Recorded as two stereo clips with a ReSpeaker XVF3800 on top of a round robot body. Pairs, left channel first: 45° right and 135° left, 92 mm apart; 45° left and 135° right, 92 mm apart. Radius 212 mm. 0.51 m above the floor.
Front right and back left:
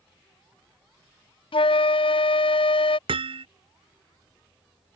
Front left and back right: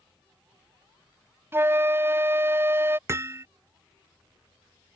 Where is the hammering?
160° left.